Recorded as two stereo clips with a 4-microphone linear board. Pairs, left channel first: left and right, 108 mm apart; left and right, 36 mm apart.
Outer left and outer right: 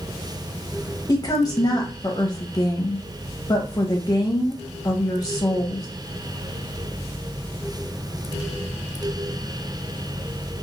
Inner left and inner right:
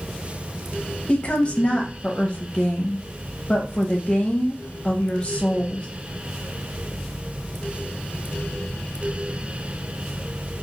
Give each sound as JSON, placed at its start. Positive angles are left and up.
{"t": 1.1, "sound": "a woman speaking", "side_deg": 35, "distance_m": 0.6}